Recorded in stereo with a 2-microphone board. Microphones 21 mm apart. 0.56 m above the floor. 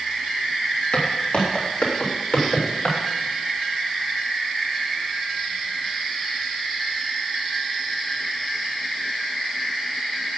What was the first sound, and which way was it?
Footsteps, 70° left (ahead or behind).